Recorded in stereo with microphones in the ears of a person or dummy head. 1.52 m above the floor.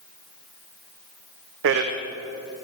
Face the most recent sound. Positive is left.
turn(degrees=-70)  # may be behind; listen again after turning